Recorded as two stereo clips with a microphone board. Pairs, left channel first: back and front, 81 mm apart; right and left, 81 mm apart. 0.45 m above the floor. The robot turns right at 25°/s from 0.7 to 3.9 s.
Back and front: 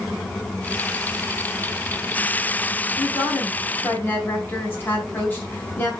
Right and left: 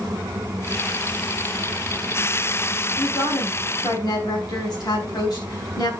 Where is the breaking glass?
I don't hear breaking glass.